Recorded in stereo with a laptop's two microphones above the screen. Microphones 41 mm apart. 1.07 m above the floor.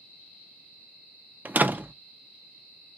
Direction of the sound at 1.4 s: 45° right (ahead or behind).